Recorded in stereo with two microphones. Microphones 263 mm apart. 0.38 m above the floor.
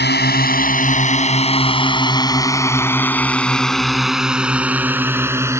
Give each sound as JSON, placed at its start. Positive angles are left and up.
{"t": 0.0, "sound": "a drone", "side_deg": 40}